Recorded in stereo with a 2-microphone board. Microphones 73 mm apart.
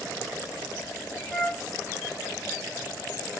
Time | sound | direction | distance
1.3 | a flute | 10° left (ahead or behind) | 0.6 m